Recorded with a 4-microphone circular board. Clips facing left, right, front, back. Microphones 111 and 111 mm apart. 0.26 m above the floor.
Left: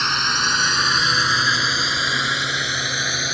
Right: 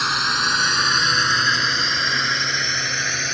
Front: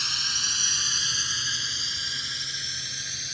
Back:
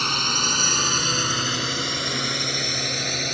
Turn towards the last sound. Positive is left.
turn(degrees=170)